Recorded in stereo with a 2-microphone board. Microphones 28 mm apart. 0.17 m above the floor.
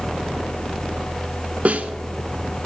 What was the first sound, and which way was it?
A snare drum, 55° right (ahead or behind).